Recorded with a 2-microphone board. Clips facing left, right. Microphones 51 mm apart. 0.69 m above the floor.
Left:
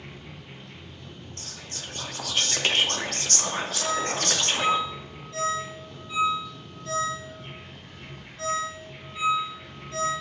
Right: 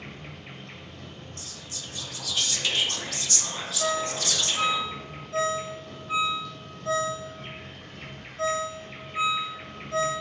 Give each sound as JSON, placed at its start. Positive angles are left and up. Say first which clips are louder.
{"t": 0.0, "sound": "an insect", "louder": "right 2 dB", "side_deg": -75, "distance_m": 1.6}
{"t": 1.4, "sound": "whispering", "louder": "left 1 dB", "side_deg": 50, "distance_m": 0.9}
{"t": 3.8, "sound": "a ringtone", "louder": "right 2 dB", "side_deg": -40, "distance_m": 3.0}